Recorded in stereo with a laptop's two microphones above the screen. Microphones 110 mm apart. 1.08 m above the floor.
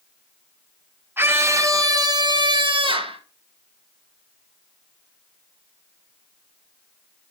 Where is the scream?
20° right (ahead or behind), 1.3 m; by 3.2 s 55° right (ahead or behind), 1.8 m.